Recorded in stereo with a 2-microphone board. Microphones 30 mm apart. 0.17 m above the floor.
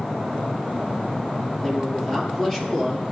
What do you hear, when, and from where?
1.6 s a man speaking: 20° left (ahead or behind), 4 m